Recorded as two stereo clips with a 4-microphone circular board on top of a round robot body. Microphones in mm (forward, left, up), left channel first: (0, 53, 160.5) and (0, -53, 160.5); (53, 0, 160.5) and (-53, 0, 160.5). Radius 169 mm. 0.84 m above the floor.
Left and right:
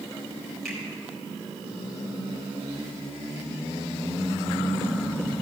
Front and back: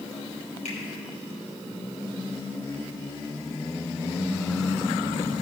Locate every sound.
0.7 s a finger snap: 5° left, 3 m